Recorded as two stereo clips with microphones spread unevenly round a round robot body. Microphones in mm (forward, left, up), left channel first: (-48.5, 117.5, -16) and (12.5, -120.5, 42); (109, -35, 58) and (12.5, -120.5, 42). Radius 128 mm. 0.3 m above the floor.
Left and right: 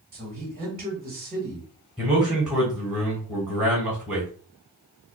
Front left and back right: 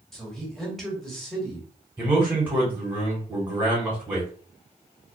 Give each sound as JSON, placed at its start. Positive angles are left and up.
{"t": 0.1, "sound": "a man speaking", "azimuth_deg": -60, "distance_m": 1.5}
{"t": 2.0, "sound": "a man speaking", "azimuth_deg": 175, "distance_m": 1.5}